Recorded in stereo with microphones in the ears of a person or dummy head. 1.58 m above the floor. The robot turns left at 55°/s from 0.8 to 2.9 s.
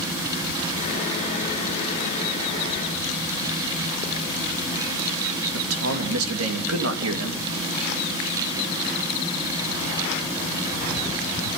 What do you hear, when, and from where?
5.5 s a man speaking: 85° right, 3 m